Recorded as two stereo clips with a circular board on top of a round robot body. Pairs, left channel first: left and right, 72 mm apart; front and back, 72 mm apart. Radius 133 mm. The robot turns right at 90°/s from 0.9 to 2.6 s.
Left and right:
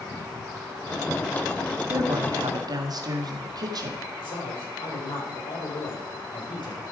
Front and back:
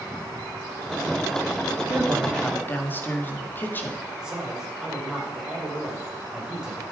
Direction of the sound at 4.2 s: 100° left.